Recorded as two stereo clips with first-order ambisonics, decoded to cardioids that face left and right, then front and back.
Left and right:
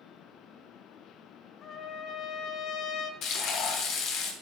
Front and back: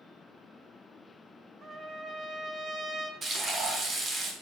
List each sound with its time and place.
1.6 s a trumpet: 120° left, 0.7 m
3.2 s frying: 115° left, 1.2 m